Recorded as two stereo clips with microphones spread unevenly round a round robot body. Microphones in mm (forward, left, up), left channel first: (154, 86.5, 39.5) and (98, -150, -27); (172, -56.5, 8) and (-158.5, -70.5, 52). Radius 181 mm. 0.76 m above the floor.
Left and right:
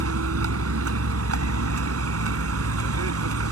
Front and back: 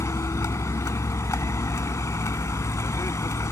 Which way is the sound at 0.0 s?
80° right.